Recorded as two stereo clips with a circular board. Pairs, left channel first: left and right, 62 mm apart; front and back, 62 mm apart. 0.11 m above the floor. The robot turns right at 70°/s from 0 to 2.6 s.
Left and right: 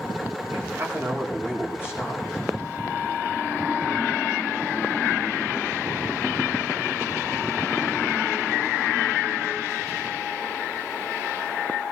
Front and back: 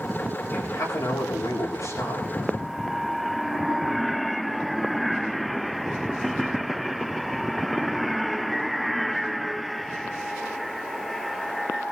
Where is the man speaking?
55° right, 8.5 m; by 2.2 s 65° left, 8.5 m.